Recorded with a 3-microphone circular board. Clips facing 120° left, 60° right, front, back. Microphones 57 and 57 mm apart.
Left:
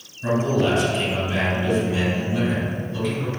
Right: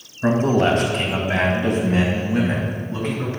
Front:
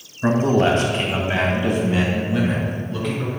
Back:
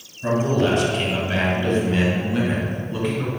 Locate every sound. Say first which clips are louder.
0.2 s a man speaking: right 3 dB, front 3 dB; 30° right, 2 m; by 3.3 s 105° right, 3 m